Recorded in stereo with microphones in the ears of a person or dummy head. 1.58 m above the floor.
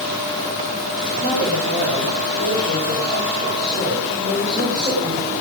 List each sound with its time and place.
1.2 s a woman speaking: 55° right (ahead or behind), 8.5 m; by 5.3 s 35° right (ahead or behind), 9.5 m